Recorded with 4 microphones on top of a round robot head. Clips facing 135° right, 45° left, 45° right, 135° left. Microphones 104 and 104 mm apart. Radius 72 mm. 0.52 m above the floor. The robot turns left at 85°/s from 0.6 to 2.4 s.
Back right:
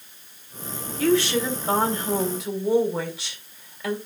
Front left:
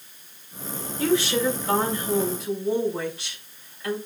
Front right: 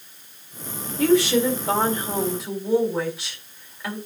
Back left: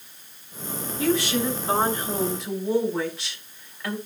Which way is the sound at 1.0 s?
15° right.